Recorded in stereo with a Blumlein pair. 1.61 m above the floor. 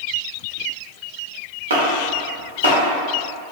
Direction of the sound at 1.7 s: 65° right.